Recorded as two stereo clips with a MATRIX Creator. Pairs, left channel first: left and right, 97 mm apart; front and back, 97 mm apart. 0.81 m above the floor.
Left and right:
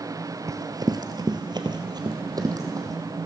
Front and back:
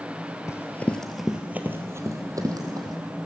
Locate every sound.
0.5 s running footsteps: 45° right, 1.1 m; by 3.0 s 140° right, 2 m